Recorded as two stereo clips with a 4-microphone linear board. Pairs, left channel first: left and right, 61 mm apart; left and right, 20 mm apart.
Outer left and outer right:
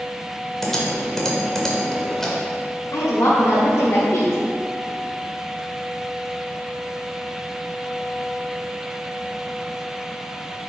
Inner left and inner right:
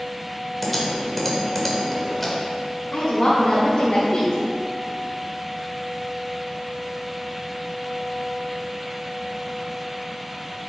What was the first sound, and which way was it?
Typing on a keyboard, 5° left (ahead or behind).